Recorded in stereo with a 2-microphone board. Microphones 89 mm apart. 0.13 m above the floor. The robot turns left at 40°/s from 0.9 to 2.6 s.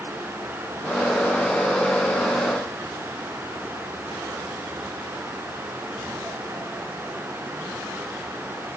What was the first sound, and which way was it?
Only background noise.